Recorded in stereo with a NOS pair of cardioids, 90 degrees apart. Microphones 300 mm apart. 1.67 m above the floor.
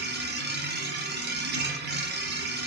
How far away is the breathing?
No breathing in this recording.